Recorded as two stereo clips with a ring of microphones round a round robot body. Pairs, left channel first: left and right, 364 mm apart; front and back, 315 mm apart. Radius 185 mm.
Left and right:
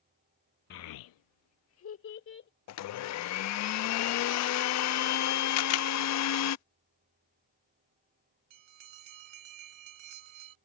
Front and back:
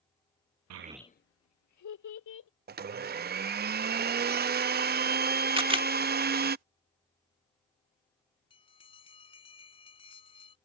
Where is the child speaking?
150° left; by 2.5 s 30° left.